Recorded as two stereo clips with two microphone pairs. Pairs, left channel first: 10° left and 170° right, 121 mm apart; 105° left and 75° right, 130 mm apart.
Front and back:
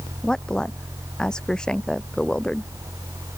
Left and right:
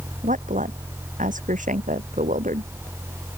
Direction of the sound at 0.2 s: 75° right.